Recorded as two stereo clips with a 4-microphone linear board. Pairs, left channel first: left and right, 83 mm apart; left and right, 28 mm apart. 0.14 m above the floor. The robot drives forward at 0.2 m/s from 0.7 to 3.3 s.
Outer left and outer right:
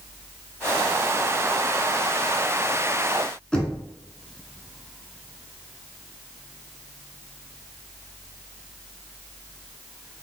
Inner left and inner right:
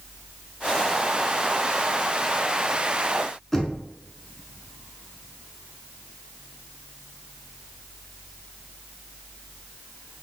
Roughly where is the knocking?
Centre.